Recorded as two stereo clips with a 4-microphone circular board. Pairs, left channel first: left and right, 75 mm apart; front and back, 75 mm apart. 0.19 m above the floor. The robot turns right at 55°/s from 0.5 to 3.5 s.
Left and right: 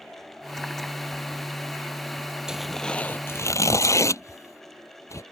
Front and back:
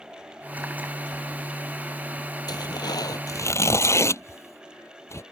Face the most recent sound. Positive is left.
turn(degrees=45)